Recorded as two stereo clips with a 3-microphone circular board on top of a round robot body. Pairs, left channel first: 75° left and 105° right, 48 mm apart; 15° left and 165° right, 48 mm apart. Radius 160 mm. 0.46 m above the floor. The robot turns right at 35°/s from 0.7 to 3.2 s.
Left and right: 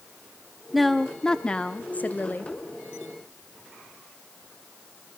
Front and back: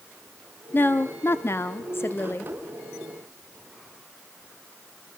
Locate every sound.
0.7 s a woman speaking: 15° right, 1.2 m; by 2.5 s 45° left, 1.2 m